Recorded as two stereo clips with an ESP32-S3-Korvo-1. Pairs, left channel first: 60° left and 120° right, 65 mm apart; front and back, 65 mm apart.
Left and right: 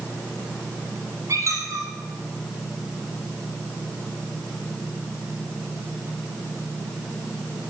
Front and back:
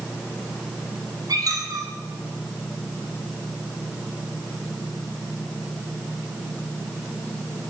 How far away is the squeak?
About 3 m.